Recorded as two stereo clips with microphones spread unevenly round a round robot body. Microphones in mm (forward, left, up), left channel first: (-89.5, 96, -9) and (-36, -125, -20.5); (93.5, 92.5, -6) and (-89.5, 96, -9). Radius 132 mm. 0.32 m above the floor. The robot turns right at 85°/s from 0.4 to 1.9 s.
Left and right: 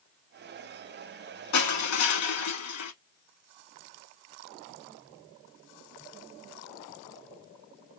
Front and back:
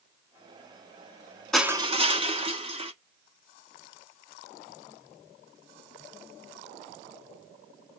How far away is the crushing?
About 0.8 m.